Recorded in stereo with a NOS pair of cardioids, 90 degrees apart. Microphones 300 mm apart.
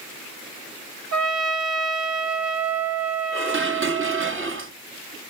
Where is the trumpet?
60° right, 1.2 m.